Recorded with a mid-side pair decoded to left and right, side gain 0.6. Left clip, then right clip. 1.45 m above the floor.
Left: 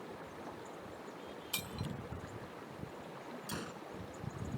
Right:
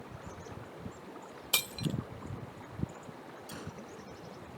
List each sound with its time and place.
1.5 s breaking glass: 45° right
3.5 s a gunshot: 20° left